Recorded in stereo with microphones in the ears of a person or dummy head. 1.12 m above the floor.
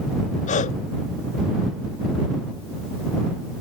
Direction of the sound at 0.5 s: 35° left (ahead or behind).